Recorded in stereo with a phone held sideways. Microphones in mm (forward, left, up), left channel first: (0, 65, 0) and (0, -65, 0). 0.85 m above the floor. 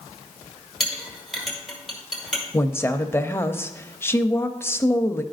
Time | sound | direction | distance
0.8 | a clink | centre (ahead or behind) | 1.7 m
2.5 | a woman speaking | 20° left (ahead or behind) | 0.5 m